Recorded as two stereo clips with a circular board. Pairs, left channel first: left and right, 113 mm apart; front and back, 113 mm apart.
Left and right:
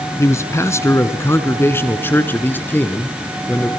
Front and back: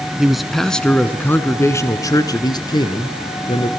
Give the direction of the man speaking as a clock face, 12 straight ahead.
9 o'clock.